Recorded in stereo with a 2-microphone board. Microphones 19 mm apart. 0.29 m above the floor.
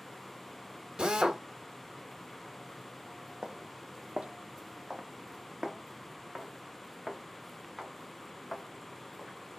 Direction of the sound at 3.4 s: 60° right (ahead or behind).